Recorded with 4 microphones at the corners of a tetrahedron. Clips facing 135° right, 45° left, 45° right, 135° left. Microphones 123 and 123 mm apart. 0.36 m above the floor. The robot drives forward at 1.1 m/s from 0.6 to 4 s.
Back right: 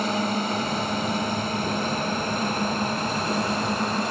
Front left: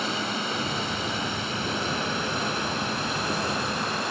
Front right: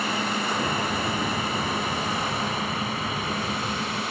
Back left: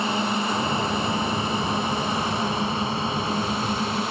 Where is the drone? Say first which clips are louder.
Back right 5 dB, back left 3 dB; 165° right; by 4.1 s 170° right.